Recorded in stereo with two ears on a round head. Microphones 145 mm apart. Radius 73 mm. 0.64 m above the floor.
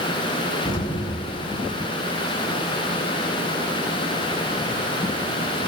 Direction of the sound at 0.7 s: 30° left (ahead or behind).